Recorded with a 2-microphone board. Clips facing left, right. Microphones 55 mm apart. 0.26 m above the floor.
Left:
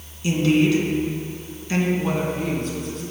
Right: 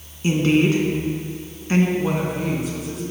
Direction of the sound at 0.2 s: 30° right (ahead or behind).